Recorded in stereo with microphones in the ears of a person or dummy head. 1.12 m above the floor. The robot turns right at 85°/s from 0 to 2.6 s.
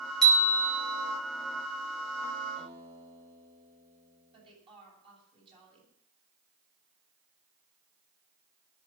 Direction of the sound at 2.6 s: 35° right (ahead or behind).